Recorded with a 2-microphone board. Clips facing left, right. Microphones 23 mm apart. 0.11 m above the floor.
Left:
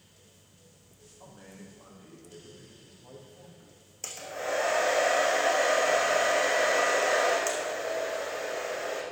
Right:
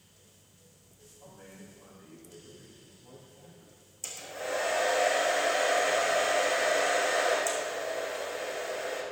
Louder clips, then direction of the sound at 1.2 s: Left 1 dB; 45° left (ahead or behind).